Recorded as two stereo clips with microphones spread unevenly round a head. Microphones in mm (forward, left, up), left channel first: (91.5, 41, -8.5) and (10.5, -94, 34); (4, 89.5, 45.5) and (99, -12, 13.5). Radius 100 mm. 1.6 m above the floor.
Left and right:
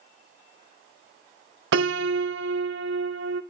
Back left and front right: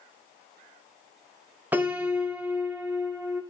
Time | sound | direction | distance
1.7 | a piano | 130° right | 0.7 m